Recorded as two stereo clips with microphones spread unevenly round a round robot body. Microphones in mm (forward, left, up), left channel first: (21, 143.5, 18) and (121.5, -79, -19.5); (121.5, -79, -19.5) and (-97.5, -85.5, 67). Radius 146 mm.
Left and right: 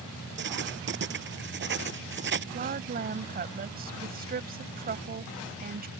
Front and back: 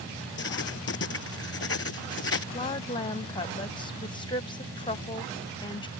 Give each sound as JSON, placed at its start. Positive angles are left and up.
{"t": 0.4, "sound": "writing", "azimuth_deg": -25}
{"t": 2.5, "sound": "a woman speaking", "azimuth_deg": -35}